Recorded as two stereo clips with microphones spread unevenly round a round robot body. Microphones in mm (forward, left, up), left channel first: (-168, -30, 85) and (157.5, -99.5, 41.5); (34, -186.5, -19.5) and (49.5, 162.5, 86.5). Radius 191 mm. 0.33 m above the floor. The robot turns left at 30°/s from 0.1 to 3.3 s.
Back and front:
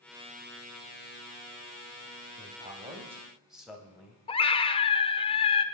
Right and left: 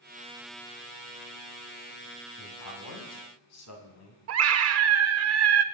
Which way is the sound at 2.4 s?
70° right.